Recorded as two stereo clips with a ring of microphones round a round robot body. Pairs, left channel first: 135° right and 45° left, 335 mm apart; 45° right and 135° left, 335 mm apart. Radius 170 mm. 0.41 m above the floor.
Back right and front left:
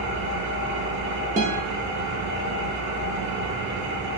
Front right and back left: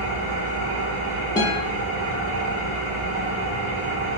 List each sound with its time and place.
0.0 s an engine running: 95° left, 1.0 m
1.4 s a guitar: 15° left, 0.7 m